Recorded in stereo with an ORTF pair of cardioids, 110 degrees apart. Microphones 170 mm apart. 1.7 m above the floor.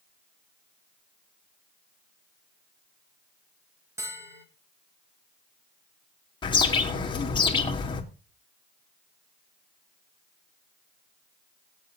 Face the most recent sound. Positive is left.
turn(degrees=30)